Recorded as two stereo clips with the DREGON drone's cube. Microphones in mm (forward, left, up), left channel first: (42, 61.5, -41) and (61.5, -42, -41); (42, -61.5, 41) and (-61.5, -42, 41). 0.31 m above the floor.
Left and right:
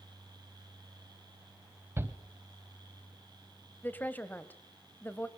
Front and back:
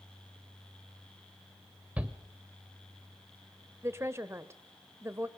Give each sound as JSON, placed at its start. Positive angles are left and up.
{"t": 2.0, "sound": "a shout", "azimuth_deg": -120, "distance_m": 1.1}
{"t": 3.8, "sound": "a woman speaking", "azimuth_deg": 150, "distance_m": 1.2}